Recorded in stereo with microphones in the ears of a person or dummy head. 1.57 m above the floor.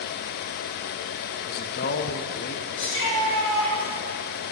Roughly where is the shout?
Left.